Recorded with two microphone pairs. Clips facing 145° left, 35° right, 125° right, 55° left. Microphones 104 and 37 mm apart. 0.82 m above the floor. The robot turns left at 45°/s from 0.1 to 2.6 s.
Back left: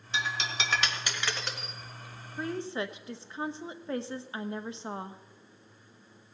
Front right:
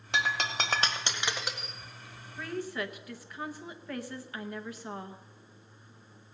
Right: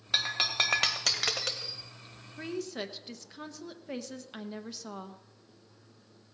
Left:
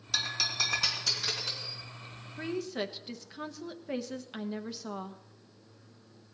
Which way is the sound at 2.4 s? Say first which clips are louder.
Back left 2 dB, left 2 dB; 140° left.